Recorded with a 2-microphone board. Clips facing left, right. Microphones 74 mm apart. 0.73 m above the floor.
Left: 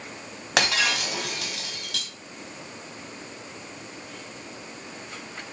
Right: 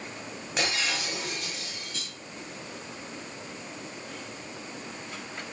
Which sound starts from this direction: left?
Breaking glass, at 0.6 s.